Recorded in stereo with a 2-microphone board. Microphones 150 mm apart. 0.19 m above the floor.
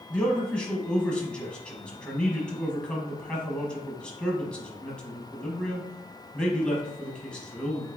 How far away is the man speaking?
About 1.2 m.